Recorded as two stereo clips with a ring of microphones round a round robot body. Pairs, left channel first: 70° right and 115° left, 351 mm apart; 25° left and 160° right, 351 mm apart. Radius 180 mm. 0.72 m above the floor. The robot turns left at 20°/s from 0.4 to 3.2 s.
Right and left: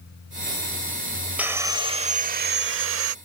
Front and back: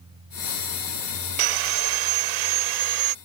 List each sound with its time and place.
1.4 s sawing: 160° right; by 3.1 s 165° left